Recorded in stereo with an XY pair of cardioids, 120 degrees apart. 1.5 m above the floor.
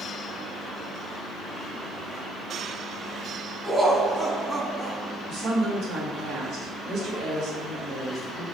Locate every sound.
3.6 s laughter: 15° right, 1.3 m
5.3 s a woman speaking: 70° right, 1.9 m